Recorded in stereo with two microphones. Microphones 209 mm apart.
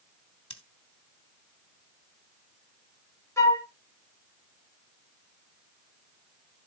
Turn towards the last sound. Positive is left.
turn(degrees=15)  # may be behind; listen again after turning